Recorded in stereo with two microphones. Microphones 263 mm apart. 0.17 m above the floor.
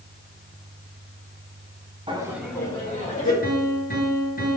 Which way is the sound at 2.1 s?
20° right (ahead or behind).